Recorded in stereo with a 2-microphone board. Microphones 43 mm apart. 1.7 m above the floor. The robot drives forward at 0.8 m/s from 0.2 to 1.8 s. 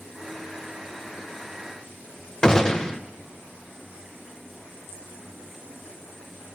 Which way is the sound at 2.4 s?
15° left (ahead or behind).